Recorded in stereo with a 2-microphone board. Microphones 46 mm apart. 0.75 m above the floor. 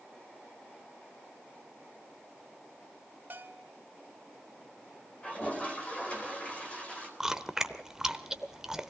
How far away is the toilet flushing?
About 4 m.